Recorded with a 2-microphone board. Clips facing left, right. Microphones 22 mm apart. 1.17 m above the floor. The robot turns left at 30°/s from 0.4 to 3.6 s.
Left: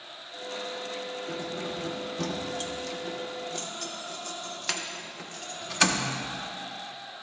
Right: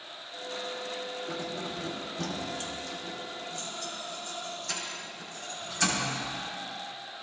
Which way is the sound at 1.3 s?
10° right (ahead or behind).